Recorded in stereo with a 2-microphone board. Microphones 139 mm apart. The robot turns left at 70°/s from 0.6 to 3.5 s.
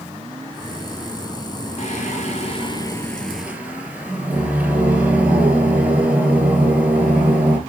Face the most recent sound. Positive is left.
turn(degrees=-10)